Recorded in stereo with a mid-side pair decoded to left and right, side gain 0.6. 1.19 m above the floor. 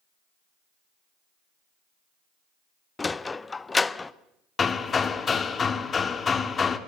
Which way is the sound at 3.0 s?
20° left.